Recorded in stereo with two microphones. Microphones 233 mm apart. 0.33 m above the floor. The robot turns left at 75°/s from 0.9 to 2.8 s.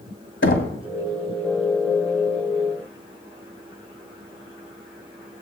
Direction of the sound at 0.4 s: 55° left (ahead or behind).